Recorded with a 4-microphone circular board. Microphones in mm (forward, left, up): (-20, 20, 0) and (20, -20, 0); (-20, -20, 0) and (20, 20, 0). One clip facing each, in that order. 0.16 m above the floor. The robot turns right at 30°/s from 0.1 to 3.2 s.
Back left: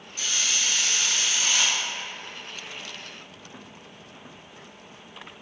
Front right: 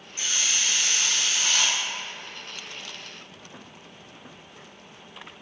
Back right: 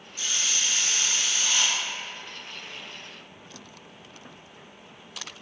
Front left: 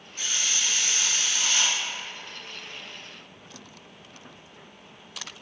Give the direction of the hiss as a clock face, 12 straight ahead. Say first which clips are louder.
Even, even; 11 o'clock.